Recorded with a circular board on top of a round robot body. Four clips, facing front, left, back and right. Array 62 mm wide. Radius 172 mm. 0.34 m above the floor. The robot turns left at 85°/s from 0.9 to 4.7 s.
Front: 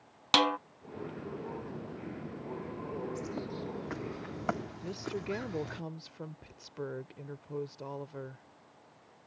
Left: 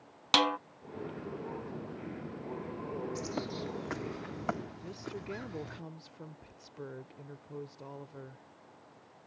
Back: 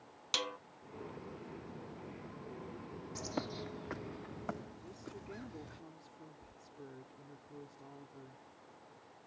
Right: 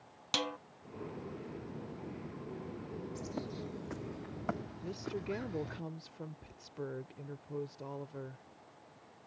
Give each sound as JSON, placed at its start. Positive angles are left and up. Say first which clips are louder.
{"t": 0.3, "sound": "a snare drum", "louder": "left 10 dB, front 14 dB", "azimuth_deg": 40}
{"t": 3.1, "sound": "a bird", "louder": "left 4 dB, front 3 dB", "azimuth_deg": 145}
{"t": 4.8, "sound": "a woman speaking", "louder": "right 2 dB, front 12 dB", "azimuth_deg": -5}